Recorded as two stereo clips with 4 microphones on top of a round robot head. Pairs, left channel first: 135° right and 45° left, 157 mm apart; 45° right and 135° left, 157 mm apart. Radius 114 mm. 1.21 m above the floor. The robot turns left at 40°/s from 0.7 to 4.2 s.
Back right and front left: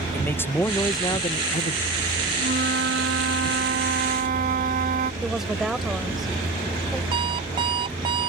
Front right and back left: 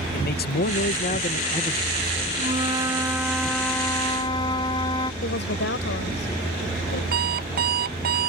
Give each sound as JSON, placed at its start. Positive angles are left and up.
{"t": 0.1, "sound": "a man speaking", "azimuth_deg": -60}
{"t": 2.4, "sound": "a flute", "azimuth_deg": 85}
{"t": 5.2, "sound": "a woman speaking", "azimuth_deg": -45}
{"t": 7.1, "sound": "an alarm clock", "azimuth_deg": 110}